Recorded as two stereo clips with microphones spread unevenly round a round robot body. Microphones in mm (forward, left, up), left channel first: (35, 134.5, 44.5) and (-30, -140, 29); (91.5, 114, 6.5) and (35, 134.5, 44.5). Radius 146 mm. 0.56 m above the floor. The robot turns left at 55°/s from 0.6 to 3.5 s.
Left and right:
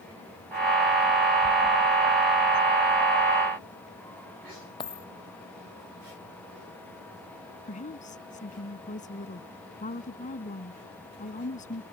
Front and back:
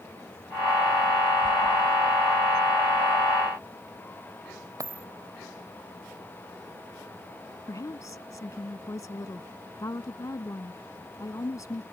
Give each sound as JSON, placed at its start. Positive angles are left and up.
{"t": 4.8, "sound": "a dropped coin", "azimuth_deg": 150}
{"t": 7.7, "sound": "a woman speaking", "azimuth_deg": 10}